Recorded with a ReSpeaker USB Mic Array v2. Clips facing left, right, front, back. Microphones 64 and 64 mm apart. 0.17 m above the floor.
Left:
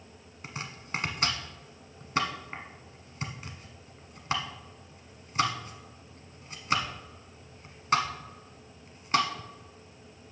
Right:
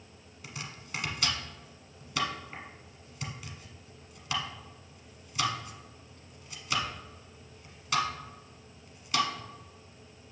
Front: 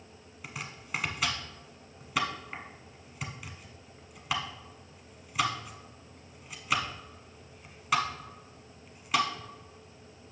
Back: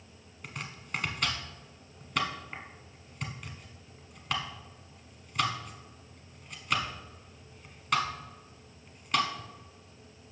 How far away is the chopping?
About 1.0 m.